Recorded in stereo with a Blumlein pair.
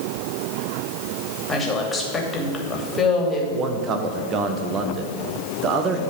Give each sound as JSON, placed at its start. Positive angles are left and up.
{"t": 1.5, "sound": "a woman speaking", "azimuth_deg": 15, "distance_m": 2.5}
{"t": 3.5, "sound": "a man speaking", "azimuth_deg": -30, "distance_m": 1.3}